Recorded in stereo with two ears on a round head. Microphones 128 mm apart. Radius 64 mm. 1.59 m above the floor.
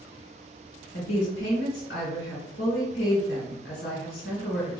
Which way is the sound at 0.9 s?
80° left.